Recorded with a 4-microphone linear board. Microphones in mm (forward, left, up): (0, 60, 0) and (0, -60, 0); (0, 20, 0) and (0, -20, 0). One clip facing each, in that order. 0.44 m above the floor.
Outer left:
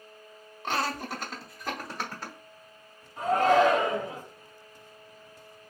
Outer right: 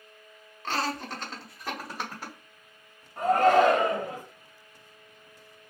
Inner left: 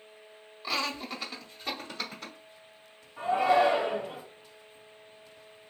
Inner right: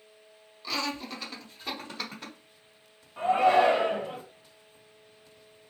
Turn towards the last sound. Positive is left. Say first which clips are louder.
# outer right 2 dB, inner right 2 dB
turn(degrees=-55)  # may be behind; listen again after turning